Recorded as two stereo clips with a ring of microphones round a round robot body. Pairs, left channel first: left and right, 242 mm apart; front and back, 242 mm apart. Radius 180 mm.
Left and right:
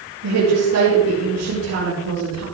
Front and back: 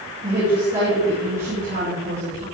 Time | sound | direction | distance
0.2 | a woman speaking | 115° right | 9 m